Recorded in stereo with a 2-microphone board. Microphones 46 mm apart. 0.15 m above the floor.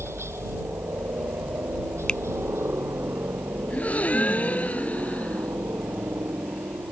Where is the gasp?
30° left (ahead or behind).